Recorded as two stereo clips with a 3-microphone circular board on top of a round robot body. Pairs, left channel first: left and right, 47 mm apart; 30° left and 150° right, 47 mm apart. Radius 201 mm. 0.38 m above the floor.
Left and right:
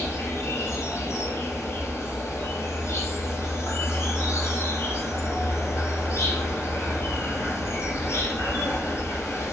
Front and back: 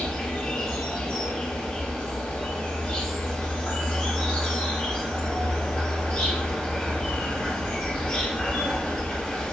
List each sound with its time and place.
0.0 s an insect: 100° left, 2.5 m